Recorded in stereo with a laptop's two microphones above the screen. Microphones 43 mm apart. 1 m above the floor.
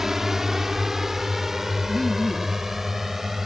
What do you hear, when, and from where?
0.0 s a drone: 10° right (ahead or behind); by 3.5 s 5° right (ahead or behind)
1.9 s laughter: 15° left (ahead or behind)